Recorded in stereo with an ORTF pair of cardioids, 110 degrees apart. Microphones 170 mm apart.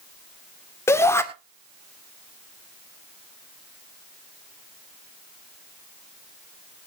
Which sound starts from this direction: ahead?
A shout, at 0.9 s.